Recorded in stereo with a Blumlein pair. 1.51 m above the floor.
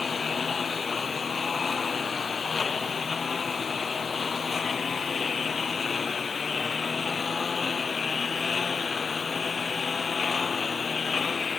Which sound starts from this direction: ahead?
A lawn mower, at 0.0 s.